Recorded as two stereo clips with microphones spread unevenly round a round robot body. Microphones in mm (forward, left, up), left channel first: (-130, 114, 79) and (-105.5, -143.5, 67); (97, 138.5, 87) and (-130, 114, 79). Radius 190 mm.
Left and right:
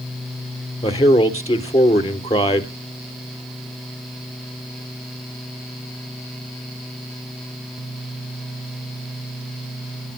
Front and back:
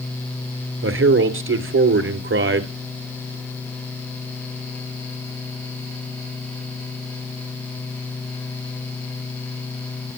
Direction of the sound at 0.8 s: 160° left.